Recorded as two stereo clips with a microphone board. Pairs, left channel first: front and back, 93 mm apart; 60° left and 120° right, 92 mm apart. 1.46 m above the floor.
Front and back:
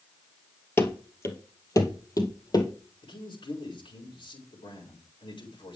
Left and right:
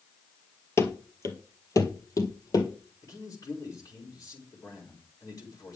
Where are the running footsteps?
40° left, 1.7 m; by 2.7 s 25° left, 2.5 m.